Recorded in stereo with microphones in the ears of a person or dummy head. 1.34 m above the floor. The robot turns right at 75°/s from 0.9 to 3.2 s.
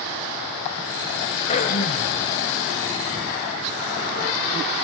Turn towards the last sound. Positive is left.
turn(degrees=165)